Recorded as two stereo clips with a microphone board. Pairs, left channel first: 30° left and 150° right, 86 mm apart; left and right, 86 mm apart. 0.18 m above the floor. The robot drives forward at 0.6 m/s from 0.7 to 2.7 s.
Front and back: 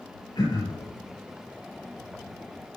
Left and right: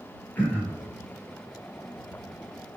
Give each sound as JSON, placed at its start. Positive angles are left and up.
{"t": 0.3, "sound": "throat clearing", "azimuth_deg": 20, "distance_m": 3.5}